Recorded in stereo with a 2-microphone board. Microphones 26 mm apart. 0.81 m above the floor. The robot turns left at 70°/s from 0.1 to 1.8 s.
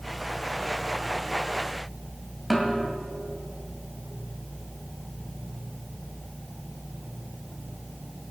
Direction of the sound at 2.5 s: 5° left (ahead or behind).